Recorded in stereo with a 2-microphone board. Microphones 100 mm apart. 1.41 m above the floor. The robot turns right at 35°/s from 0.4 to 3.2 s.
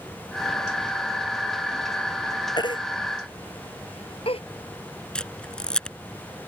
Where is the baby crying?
45° left (ahead or behind); by 4.4 s 70° left (ahead or behind).